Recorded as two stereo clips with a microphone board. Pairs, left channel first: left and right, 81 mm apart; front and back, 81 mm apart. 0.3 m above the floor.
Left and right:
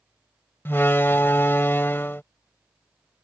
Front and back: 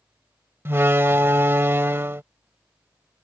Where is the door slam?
135° left.